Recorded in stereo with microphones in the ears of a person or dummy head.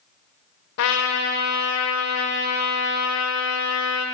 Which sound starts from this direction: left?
A trumpet, at 0.8 s.